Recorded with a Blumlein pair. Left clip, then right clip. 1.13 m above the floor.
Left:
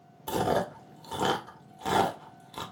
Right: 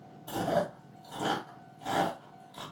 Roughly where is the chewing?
Ahead left.